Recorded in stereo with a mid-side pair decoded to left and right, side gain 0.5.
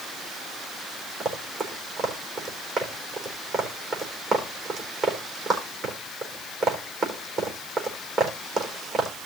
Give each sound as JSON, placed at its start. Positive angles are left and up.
{"t": 1.2, "sound": "running footsteps", "azimuth_deg": -40, "distance_m": 4.0}